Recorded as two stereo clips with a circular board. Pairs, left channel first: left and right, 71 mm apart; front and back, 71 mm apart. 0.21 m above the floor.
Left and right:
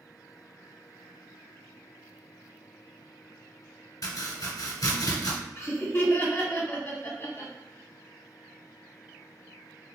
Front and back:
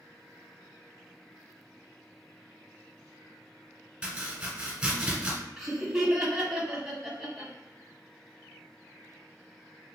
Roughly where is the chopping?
Left.